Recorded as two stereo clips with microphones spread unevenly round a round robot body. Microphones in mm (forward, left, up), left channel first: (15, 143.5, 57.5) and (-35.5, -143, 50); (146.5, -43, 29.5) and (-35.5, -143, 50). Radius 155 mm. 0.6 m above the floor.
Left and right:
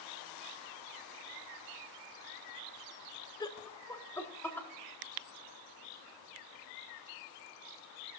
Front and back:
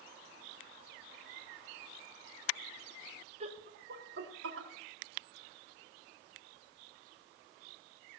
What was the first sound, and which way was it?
Laughter, 155° left.